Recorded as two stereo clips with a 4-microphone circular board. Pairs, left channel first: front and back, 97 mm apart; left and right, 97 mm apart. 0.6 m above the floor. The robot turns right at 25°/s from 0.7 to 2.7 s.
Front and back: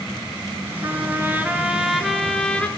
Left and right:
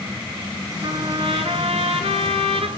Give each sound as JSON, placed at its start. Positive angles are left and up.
{"t": 0.8, "sound": "a trumpet", "azimuth_deg": -120, "distance_m": 2.0}